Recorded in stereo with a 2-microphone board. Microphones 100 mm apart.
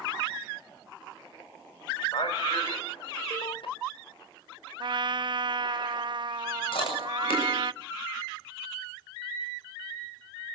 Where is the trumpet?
55° right (ahead or behind), 0.5 m.